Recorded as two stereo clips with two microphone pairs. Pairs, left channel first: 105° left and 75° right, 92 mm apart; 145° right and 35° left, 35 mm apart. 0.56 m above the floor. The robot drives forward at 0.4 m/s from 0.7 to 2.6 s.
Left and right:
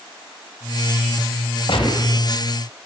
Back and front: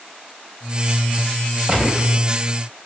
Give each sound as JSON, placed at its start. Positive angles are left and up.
{"t": 1.7, "sound": "a gunshot", "azimuth_deg": 90, "distance_m": 2.0}